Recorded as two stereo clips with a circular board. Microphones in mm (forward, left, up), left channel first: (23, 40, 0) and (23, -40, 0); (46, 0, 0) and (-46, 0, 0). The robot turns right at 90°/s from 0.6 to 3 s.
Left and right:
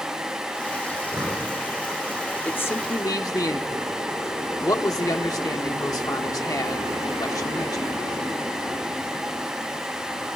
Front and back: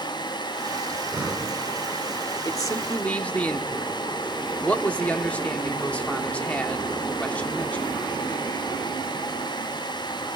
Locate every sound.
0.9 s breathing: 135° right, 2.5 m; by 1.5 s 80° right, 2.5 m
2.5 s a man speaking: 25° left, 1.3 m; by 7.8 s 70° left, 1.3 m